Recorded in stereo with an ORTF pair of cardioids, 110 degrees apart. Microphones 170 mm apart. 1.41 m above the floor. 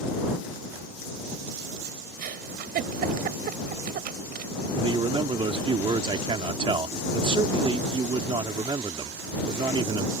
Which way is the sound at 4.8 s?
30° right.